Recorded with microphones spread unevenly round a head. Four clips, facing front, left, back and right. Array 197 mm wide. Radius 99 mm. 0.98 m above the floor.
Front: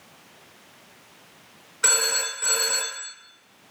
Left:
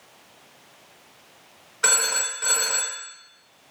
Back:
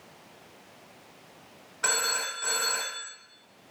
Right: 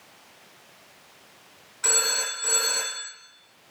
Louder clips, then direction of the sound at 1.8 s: Left 3 dB, front 3 dB; 70° left.